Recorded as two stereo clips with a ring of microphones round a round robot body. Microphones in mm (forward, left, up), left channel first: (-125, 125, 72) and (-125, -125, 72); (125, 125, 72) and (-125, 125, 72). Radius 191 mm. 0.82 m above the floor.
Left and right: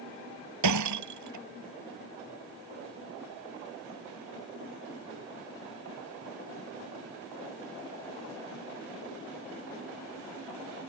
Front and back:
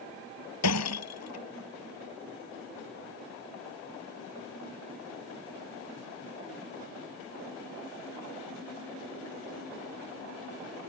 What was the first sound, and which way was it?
Breaking glass, 50° right.